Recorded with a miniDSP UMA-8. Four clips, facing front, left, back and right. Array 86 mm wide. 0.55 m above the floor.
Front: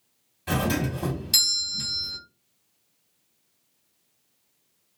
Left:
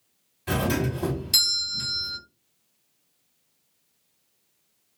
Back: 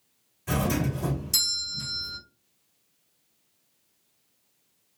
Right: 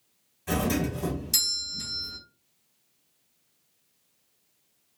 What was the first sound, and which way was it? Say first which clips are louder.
A doorbell: left 1 dB, front 1 dB; 45° left.